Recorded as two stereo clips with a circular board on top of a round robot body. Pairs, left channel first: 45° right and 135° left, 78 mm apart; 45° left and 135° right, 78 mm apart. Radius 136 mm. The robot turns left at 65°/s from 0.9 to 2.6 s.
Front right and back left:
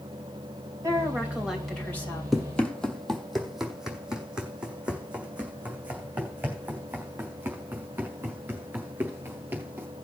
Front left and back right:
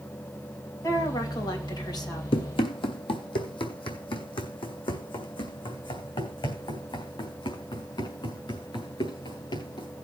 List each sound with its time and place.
0.8 s a woman speaking: 90° left, 3 m; by 2.2 s 5° left, 3 m
2.3 s running footsteps: 45° left, 1.0 m; by 9.9 s 70° left, 4.5 m